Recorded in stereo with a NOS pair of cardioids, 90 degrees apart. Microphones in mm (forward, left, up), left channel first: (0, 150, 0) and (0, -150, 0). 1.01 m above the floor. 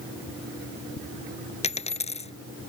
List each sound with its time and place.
1.6 s a dropped coin: 20° left